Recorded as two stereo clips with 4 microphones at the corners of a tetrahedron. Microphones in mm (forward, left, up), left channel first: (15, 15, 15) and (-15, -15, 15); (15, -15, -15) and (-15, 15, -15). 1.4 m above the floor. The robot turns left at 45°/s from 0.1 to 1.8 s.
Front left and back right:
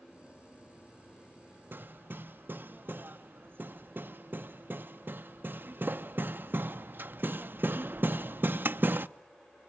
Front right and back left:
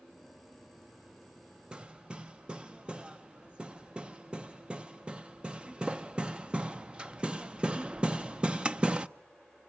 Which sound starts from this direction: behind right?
Hammering, at 1.7 s.